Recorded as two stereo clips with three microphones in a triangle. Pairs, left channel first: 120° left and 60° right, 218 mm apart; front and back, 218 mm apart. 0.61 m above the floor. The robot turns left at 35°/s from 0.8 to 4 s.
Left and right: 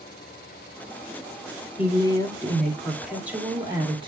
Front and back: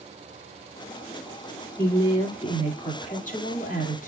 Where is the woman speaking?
70° left, 1.4 m; by 4.1 s 10° right, 1.4 m.